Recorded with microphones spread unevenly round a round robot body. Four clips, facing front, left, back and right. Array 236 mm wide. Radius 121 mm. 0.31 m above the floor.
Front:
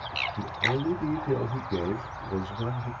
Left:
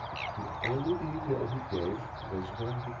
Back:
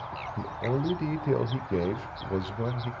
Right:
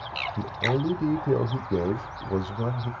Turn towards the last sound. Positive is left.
turn(degrees=-120)